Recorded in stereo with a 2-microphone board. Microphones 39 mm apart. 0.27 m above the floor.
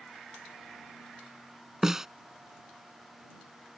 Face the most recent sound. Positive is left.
turn(degrees=-10)  # may be behind; listen again after turning